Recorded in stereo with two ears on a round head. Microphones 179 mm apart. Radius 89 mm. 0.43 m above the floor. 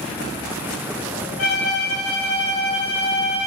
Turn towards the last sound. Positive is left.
turn(degrees=75)  # may be behind; listen again after turning